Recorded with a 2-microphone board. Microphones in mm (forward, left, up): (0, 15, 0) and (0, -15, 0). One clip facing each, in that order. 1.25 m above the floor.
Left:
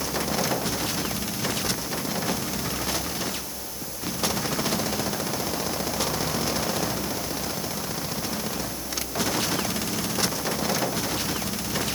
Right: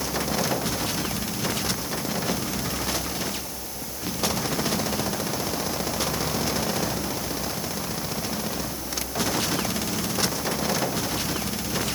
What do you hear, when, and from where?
Only background noise.